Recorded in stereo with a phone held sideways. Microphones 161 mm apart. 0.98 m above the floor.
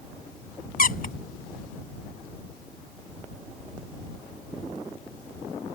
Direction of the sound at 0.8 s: 70° left (ahead or behind).